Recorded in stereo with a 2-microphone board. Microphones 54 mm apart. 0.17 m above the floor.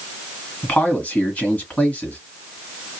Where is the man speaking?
30° left (ahead or behind), 1.6 m.